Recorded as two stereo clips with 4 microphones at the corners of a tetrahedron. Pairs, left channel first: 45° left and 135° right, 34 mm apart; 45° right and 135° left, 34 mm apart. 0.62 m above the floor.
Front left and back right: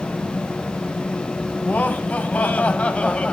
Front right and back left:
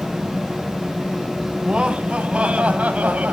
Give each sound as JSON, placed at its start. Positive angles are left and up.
{"t": 1.6, "sound": "laughter", "azimuth_deg": 70, "distance_m": 3.5}